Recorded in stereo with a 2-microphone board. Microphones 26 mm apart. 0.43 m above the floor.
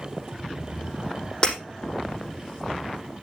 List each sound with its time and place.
1.4 s breaking glass: 30° left (ahead or behind), 5 m